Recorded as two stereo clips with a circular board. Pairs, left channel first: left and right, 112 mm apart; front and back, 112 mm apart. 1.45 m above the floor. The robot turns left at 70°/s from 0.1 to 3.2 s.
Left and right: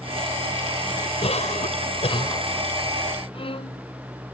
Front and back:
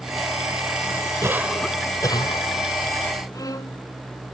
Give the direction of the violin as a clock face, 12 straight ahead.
10 o'clock.